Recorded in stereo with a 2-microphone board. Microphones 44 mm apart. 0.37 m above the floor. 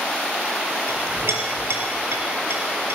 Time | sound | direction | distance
0.9 | a clink | 70° right (ahead or behind) | 5.5 m